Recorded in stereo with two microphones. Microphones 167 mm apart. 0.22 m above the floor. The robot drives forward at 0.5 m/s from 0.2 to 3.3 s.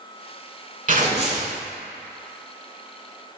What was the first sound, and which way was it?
Tearing paper, 50° right (ahead or behind).